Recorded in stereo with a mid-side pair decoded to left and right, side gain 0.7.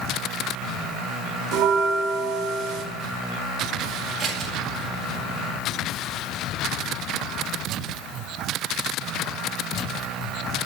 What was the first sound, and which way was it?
A bell, 60° right.